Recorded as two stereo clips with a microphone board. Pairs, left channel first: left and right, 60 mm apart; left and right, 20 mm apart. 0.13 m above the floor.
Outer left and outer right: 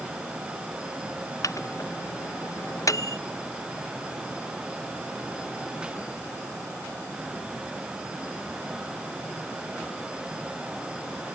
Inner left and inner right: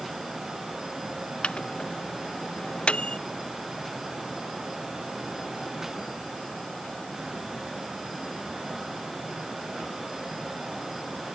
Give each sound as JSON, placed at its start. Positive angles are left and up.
{"t": 1.4, "sound": "a microwave", "side_deg": 65}